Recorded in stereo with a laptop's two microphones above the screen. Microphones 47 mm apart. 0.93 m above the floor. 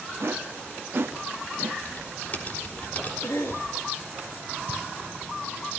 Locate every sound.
0.2 s a whoosh: 50° right (ahead or behind), 1.0 m
1.9 s typing on a keyboard: 35° left (ahead or behind), 4 m
3.2 s a cough: 65° left (ahead or behind), 3 m